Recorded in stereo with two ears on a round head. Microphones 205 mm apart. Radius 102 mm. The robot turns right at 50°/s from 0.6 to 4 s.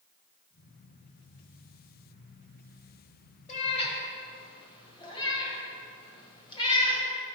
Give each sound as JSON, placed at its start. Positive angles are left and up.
{"t": 3.5, "sound": "a cat meowing", "side_deg": 35, "distance_m": 1.2}